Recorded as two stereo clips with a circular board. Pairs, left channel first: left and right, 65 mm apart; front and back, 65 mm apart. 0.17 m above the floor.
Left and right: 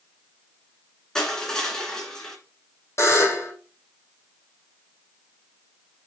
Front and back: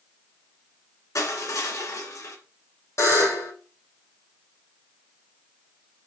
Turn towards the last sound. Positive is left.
turn(degrees=45)